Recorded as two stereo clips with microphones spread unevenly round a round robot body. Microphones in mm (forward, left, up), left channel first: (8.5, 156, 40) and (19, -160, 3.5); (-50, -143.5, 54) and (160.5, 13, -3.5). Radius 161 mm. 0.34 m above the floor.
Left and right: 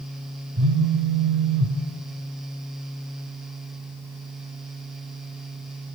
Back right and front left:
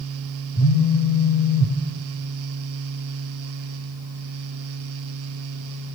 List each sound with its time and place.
0.6 s a phone buzzing: 80° right, 1.6 m